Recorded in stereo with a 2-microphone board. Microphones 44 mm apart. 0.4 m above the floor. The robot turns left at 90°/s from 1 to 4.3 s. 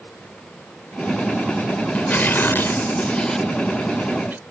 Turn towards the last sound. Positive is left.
turn(degrees=-70)